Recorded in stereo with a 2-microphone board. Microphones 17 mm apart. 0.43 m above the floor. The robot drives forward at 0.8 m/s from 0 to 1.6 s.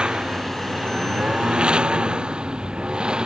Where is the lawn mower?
65° right (ahead or behind); by 3.3 s 60° right (ahead or behind).